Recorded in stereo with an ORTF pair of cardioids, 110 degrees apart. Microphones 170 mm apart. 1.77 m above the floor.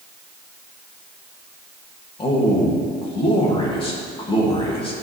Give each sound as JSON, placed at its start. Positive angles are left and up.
{"t": 2.2, "sound": "a man speaking", "azimuth_deg": 35, "distance_m": 2.5}